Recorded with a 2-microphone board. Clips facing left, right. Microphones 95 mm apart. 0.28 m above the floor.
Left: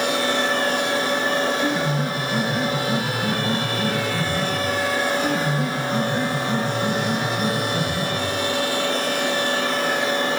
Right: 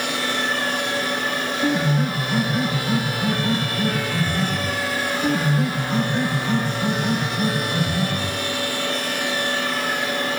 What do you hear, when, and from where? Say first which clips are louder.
1.6 s a piano: right 1 dB; 25° right (ahead or behind), 7.5 m